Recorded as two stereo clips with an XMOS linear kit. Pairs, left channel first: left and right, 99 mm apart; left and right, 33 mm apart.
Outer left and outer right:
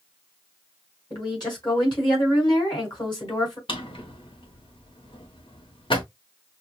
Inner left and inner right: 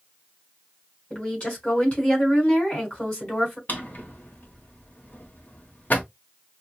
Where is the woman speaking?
50° left (ahead or behind), 3.5 m.